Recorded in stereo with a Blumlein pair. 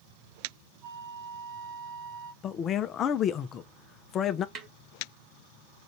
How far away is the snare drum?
About 1.5 m.